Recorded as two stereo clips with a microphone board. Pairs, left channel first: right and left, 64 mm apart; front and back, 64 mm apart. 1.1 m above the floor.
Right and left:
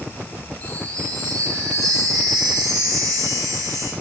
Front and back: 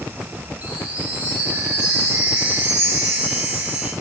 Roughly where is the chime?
Left.